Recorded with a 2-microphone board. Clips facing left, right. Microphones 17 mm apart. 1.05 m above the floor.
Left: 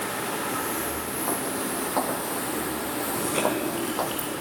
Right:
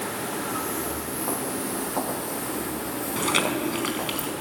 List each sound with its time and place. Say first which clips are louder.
0.5 s footsteps: even; centre (ahead or behind), 3.5 m; by 4.2 s 65° left (ahead or behind), 2.5 m
3.2 s chewing: right 3 dB; 80° right, 4.5 m